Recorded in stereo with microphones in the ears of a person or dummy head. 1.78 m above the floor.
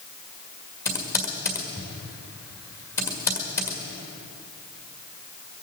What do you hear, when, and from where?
0.8 s typing on a keyboard: 10° left (ahead or behind), 1.8 m